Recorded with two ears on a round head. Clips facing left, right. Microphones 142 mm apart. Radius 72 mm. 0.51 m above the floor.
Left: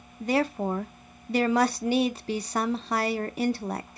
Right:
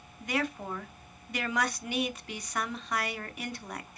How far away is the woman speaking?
About 0.8 m.